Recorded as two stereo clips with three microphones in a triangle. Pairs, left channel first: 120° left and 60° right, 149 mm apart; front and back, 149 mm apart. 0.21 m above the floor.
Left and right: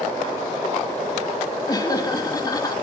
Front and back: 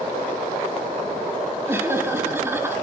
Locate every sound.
1.7 s laughter: 130° left, 1.0 m